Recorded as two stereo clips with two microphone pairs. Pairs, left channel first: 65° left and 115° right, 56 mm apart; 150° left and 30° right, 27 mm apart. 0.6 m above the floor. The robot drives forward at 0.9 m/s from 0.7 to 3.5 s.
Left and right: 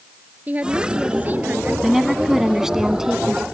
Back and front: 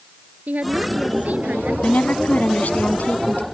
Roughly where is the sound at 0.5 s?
Ahead right.